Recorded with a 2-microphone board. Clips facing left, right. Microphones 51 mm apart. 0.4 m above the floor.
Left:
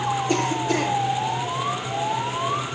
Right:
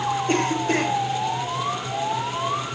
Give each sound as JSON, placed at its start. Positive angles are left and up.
{"t": 0.3, "sound": "a cough", "side_deg": -45, "distance_m": 9.5}